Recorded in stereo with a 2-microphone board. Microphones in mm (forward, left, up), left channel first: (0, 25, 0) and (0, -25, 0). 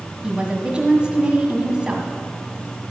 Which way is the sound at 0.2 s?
20° right (ahead or behind).